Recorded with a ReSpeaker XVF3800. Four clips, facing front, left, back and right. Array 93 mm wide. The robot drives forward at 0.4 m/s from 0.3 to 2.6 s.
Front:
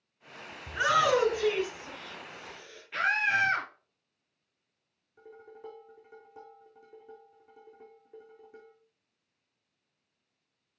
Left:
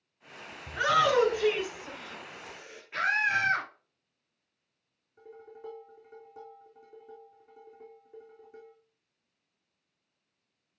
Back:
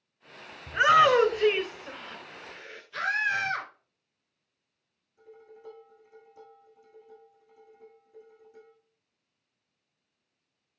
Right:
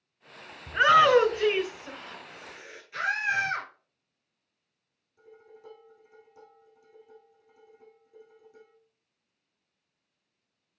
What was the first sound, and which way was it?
A shout, 125° right.